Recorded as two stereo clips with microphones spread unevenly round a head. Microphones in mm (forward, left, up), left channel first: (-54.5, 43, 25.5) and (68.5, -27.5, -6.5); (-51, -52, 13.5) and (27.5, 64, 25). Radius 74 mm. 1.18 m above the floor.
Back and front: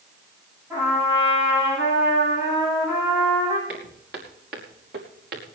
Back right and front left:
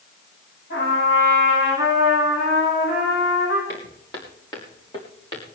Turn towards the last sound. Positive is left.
turn(degrees=-65)